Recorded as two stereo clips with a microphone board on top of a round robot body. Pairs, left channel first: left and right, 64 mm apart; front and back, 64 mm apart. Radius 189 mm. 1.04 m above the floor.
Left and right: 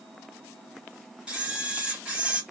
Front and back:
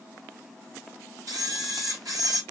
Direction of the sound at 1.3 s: 165° right.